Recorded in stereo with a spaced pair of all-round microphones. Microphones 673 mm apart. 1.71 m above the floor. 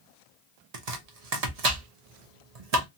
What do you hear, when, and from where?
0.7 s chopping: 65° right (ahead or behind), 0.8 m